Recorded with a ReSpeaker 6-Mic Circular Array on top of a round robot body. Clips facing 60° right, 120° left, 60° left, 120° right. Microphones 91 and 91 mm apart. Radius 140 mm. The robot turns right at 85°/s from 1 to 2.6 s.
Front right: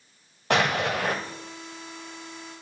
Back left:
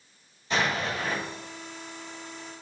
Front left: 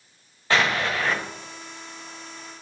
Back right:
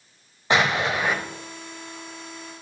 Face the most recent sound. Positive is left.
turn(degrees=85)